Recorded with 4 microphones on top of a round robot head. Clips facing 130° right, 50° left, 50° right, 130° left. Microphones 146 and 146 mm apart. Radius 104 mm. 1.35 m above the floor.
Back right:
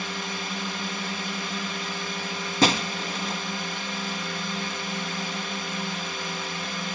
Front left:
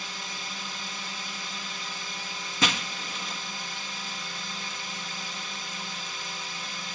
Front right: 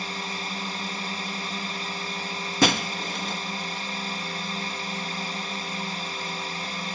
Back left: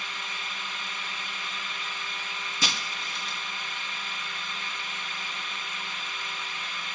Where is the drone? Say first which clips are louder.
Back right 8 dB, front right 6 dB; 105° right.